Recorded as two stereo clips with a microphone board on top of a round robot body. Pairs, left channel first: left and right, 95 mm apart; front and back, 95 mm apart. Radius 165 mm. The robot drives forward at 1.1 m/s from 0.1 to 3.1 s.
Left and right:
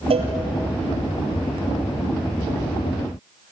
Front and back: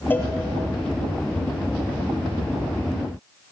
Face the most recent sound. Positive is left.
turn(degrees=-135)